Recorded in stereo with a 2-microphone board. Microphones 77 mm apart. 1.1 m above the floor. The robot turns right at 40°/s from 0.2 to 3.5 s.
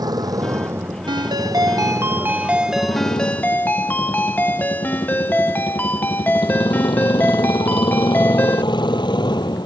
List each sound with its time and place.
0.0 s a motorcycle: 60° right (ahead or behind); by 9.7 s 70° left (ahead or behind)
1.1 s a ringtone: 75° right; by 8.7 s 25° left